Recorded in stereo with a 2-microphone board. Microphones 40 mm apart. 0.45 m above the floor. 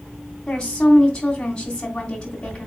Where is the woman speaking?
20° left (ahead or behind), 3 m.